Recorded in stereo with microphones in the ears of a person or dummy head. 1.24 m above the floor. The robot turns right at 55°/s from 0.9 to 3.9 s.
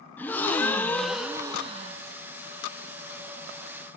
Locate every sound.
0.2 s a gasp: 165° left, 0.8 m; by 2.0 s 135° right, 0.8 m